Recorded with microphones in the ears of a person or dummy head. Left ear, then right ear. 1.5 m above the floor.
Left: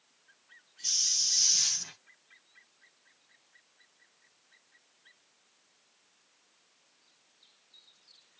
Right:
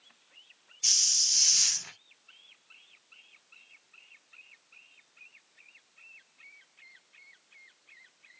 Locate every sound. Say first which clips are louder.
0.8 s a hiss: right 3 dB; 55° right (ahead or behind), 0.6 m